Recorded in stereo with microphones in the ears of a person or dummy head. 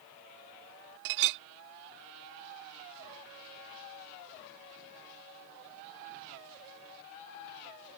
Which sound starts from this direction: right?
A clink, at 1.1 s.